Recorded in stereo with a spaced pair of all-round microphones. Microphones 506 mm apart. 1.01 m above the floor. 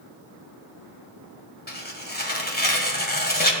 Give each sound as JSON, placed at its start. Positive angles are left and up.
{"t": 1.7, "sound": "tearing paper", "side_deg": 15, "distance_m": 1.5}